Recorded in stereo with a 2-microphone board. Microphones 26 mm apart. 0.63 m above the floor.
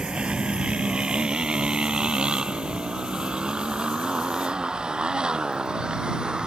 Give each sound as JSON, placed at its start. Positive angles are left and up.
{"t": 0.0, "sound": "a motorcycle", "side_deg": -40}